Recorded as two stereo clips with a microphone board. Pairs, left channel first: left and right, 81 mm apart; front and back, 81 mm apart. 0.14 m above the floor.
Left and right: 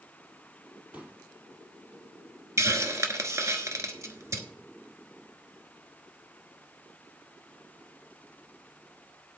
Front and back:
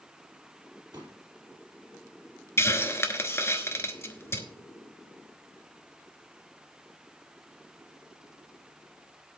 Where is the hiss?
50° right, 1.2 m.